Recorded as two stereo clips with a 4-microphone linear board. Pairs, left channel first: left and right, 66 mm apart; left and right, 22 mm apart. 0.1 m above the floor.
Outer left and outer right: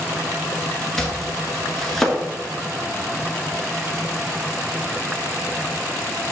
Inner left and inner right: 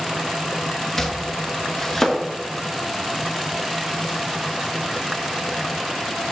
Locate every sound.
1.0 s chopping: 5° left (ahead or behind), 1.1 m